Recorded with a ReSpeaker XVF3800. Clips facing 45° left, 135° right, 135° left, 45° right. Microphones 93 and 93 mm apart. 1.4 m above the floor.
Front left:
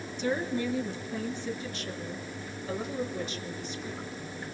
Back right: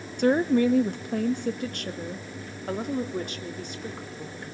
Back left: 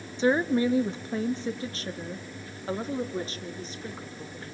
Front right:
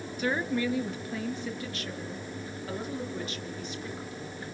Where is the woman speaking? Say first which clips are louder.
Back right 9 dB, back left 6 dB; 160° right, 1.1 m; by 4.4 s 170° right, 3.5 m.